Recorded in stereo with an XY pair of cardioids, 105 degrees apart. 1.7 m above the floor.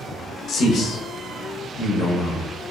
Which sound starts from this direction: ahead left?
A man speaking, at 0.5 s.